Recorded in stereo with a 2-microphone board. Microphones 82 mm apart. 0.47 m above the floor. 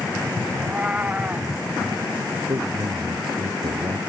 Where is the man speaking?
70° right (ahead or behind).